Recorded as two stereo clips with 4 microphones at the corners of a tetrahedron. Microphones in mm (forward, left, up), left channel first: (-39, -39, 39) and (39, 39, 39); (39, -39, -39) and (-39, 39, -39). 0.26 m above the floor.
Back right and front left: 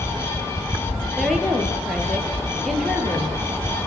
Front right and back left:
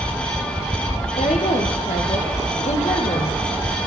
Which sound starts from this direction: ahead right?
A woman speaking, at 1.2 s.